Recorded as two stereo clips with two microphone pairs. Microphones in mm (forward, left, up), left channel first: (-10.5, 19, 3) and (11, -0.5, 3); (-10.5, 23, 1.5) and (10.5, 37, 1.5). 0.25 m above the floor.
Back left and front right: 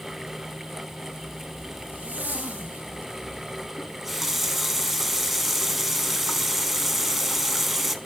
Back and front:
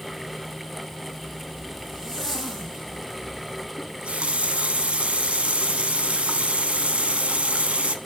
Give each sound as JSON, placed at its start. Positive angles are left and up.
{"t": 1.1, "sound": "a zipper", "azimuth_deg": -40, "distance_m": 3.5}
{"t": 3.8, "sound": "a running tap", "azimuth_deg": 45, "distance_m": 1.3}